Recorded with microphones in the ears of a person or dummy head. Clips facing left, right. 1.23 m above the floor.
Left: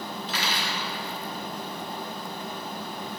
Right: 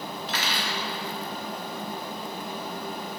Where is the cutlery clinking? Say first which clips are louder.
Even; 50° right (ahead or behind), 1.6 m.